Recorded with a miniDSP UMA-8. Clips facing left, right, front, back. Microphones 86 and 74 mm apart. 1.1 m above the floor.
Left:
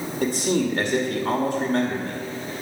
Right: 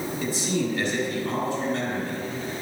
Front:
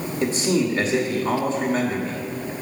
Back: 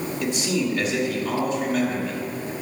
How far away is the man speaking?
About 2 m.